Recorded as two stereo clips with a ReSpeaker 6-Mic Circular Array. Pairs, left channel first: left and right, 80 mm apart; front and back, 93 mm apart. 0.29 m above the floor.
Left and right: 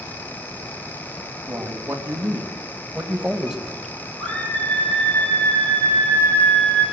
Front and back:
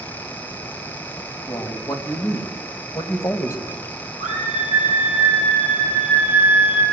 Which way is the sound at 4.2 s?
15° left.